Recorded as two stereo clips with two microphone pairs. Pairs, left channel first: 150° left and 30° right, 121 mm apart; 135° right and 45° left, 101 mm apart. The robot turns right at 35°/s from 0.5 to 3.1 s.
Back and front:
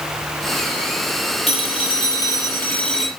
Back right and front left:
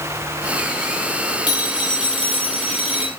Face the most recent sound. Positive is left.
turn(degrees=-120)